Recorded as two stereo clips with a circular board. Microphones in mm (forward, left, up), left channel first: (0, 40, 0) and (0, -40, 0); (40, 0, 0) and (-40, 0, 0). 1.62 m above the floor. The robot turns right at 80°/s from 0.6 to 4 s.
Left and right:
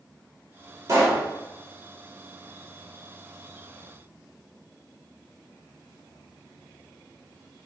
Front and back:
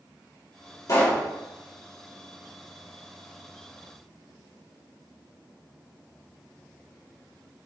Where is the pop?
45° right, 4.5 m; by 1.2 s 15° right, 4.5 m.